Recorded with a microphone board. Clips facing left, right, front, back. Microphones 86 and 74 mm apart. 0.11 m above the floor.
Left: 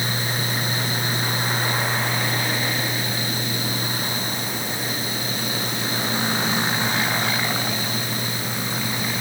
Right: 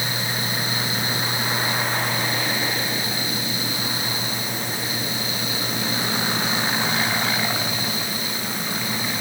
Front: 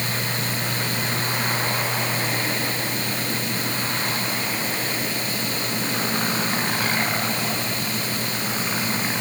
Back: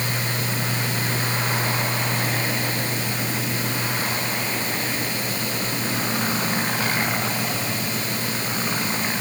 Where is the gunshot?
I don't hear a gunshot.